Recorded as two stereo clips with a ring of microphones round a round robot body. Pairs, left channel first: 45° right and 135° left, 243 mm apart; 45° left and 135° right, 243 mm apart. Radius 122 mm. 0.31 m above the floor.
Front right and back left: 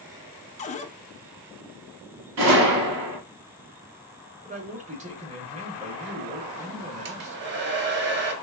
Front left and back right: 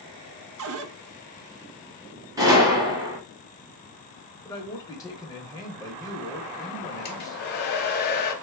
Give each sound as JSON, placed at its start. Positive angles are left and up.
{"t": 0.6, "sound": "a cupboard door", "azimuth_deg": -105, "distance_m": 0.5}
{"t": 2.4, "sound": "a gunshot", "azimuth_deg": 150, "distance_m": 1.7}
{"t": 4.5, "sound": "a man speaking", "azimuth_deg": 105, "distance_m": 1.0}
{"t": 7.0, "sound": "a hair dryer", "azimuth_deg": 90, "distance_m": 0.8}